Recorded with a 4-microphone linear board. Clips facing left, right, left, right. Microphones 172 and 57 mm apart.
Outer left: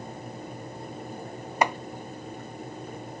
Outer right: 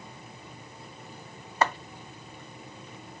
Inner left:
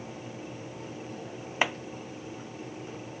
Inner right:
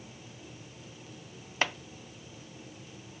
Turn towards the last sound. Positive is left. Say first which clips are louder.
# outer left 1 dB, inner left 3 dB
turn(degrees=15)  # may be behind; listen again after turning